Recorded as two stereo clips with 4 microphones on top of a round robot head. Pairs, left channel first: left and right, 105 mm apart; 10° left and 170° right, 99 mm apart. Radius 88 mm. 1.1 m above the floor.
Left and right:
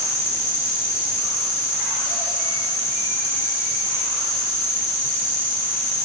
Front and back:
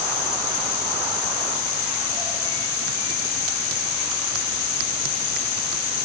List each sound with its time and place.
Only background noise.